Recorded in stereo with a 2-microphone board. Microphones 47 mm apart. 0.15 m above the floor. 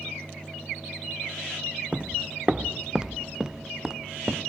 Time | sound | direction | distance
1.9 | footsteps | 25° right (ahead or behind) | ?